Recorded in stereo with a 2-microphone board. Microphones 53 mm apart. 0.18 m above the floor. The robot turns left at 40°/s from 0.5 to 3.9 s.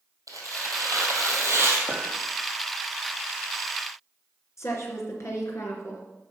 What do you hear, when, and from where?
0.3 s tearing paper: 85° right, 2.5 m; by 1.8 s 135° right, 2.5 m
1.9 s a clink: 50° right (ahead or behind), 4 m; by 2.0 s 55° right (ahead or behind), 4 m
4.6 s a woman speaking: 55° left (ahead or behind), 2.5 m